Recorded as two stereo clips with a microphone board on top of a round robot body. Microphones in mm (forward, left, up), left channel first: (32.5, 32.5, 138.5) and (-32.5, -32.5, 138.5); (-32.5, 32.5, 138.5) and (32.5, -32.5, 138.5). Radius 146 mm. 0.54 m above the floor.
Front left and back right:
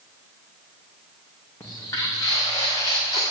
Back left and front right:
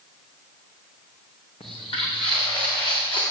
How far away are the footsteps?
About 3 m.